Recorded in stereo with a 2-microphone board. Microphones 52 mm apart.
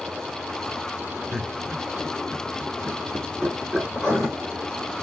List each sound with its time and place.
1.3 s laughter: 25° right (ahead or behind), 1.8 m
3.9 s writing: 15° left (ahead or behind), 4 m